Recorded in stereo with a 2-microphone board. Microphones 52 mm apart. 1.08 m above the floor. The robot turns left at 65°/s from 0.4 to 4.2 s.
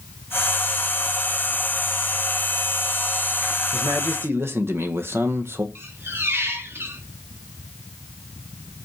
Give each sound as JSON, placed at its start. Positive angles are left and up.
{"t": 3.7, "sound": "a man speaking", "azimuth_deg": -70, "distance_m": 1.1}
{"t": 5.8, "sound": "a squeak", "side_deg": -55, "distance_m": 1.3}